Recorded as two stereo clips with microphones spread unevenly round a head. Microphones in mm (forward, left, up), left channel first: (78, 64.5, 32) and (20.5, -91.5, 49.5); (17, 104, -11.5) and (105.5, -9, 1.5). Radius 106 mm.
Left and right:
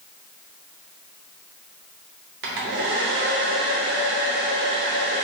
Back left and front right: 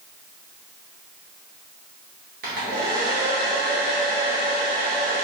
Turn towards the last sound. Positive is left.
turn(degrees=-95)